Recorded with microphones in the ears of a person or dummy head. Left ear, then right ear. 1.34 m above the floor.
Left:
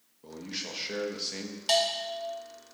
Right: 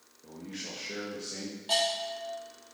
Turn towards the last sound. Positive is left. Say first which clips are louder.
# left 2 dB
turn(degrees=60)  # may be behind; listen again after turning